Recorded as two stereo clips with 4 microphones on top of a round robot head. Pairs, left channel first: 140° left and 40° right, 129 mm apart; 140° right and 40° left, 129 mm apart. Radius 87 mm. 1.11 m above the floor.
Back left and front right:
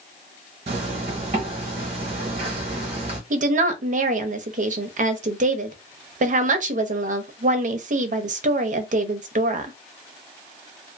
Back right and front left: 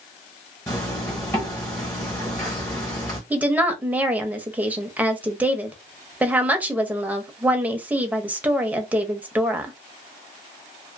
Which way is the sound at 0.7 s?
75° right.